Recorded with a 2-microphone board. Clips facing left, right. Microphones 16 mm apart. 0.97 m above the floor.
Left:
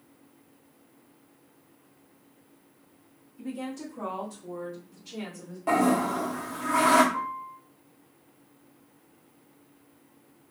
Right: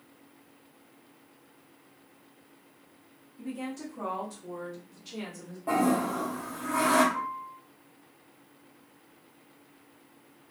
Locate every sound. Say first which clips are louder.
3.4 s a woman speaking: left 1 dB; 5° left (ahead or behind), 1.0 m; by 5.6 s 25° right (ahead or behind), 1.3 m
5.7 s a toilet flushing: left 3 dB; 55° left (ahead or behind), 0.6 m
7.1 s a piano: left 2 dB; 45° left (ahead or behind), 0.5 m